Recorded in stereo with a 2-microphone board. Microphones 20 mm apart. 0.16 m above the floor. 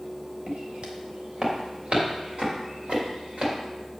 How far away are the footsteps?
About 3.5 m.